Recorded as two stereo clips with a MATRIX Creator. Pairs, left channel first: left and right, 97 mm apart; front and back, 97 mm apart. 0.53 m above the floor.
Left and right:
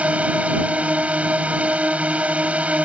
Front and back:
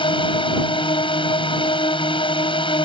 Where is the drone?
15° right.